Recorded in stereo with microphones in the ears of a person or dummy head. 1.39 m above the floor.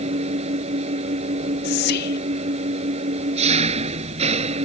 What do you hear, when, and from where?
0.0 s an engine running: 40° right (ahead or behind)
1.6 s whispering: 50° left (ahead or behind)